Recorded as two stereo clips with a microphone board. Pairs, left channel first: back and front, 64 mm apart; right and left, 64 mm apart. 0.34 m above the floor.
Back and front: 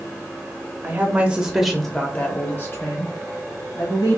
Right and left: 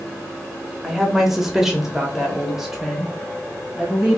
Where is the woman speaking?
5° left, 0.9 m; by 4.2 s 175° left, 1.7 m.